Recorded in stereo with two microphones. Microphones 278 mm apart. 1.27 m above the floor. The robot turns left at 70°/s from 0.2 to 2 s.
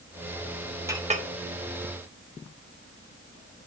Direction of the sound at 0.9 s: 10° right (ahead or behind).